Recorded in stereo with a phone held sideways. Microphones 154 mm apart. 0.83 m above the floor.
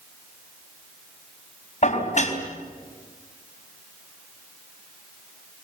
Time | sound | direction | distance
1.8 | dishes clattering | 50° left (ahead or behind) | 3.5 m